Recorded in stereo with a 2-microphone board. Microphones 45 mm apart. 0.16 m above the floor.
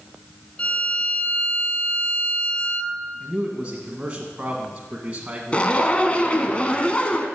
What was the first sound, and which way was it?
A violin, 30° left (ahead or behind).